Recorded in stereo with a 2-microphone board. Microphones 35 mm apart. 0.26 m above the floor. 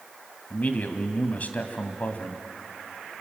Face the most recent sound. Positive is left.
turn(degrees=45)  # may be behind; listen again after turning